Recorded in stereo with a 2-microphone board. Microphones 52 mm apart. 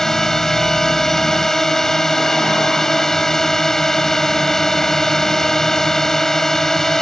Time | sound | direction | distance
0.0 | a drone | 10° left (ahead or behind) | ?